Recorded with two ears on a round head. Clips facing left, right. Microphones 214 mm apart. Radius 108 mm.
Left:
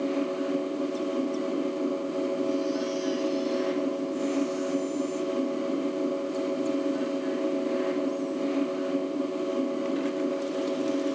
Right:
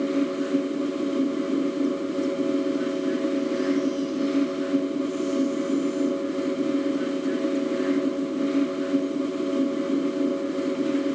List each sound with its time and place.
Only background noise.